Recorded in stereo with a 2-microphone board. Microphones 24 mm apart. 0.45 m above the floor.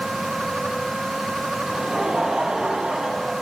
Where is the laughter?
45° right (ahead or behind), 3 m.